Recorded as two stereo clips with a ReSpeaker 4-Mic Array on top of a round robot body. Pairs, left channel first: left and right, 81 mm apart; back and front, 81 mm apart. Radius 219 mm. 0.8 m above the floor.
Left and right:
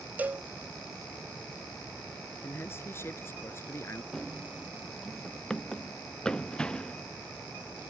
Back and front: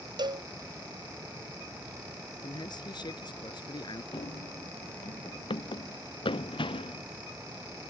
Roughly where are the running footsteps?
Behind.